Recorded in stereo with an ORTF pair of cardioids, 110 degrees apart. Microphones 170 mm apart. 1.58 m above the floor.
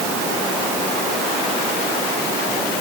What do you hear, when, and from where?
Only background noise.